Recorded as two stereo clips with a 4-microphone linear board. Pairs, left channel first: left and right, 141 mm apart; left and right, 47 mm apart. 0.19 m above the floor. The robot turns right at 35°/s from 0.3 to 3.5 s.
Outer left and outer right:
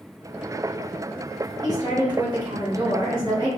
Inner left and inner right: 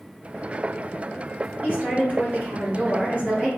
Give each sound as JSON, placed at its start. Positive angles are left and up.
{"t": 1.6, "sound": "a woman speaking", "azimuth_deg": -120, "distance_m": 1.3}